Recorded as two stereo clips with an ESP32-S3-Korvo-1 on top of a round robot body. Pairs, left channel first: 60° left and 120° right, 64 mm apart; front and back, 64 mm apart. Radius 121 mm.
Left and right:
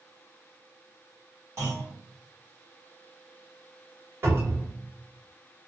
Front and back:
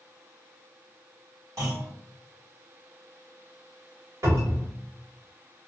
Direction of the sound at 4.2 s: 160° right.